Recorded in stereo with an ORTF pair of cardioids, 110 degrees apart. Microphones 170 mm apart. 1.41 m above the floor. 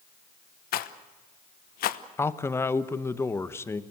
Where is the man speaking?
15° left, 1.2 m.